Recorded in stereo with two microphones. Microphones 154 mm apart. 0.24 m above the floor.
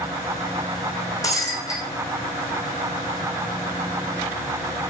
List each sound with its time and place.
1.2 s breaking glass: 20° left (ahead or behind), 4 m